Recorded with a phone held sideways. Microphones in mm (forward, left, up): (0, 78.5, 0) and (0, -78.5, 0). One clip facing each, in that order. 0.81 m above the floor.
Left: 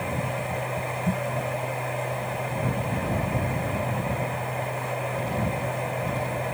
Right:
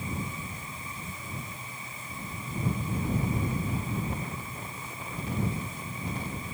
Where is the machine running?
70° left (ahead or behind).